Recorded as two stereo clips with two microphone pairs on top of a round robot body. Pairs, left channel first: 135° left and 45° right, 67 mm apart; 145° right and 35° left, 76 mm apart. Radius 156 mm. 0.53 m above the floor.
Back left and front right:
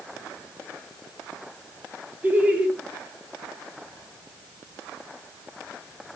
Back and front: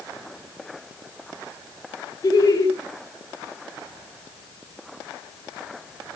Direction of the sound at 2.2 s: 110° right.